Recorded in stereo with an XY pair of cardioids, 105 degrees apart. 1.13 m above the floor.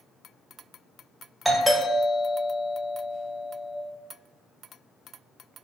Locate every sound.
1.4 s a doorbell: straight ahead, 1.6 m